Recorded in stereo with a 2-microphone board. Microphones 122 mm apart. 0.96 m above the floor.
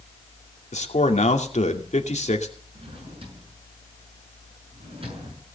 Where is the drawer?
50° right (ahead or behind), 6 m.